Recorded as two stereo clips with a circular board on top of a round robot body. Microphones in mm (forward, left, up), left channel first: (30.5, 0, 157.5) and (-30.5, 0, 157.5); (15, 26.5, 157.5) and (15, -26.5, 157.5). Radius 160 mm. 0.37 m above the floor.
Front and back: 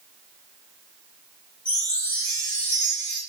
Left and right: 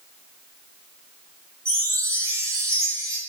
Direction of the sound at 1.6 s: 70° right.